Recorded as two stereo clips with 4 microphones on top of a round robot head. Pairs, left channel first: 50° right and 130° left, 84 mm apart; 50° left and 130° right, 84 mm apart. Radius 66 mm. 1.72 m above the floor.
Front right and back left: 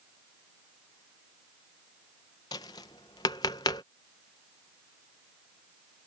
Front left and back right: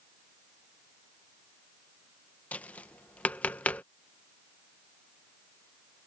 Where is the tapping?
20° right.